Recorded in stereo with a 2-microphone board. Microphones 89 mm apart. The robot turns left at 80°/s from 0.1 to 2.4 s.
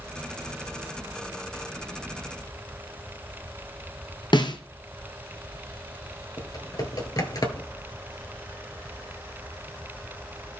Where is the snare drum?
60° left (ahead or behind), 1.2 m.